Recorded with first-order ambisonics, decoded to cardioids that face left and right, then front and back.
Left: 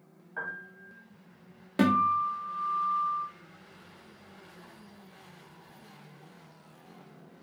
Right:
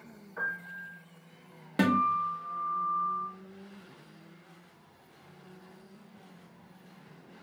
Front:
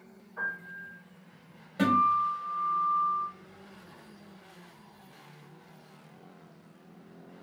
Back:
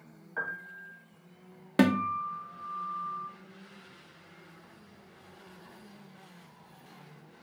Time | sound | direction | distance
0.4 | a piano | 155° left | 1.2 m
1.8 | a guitar | straight behind | 0.8 m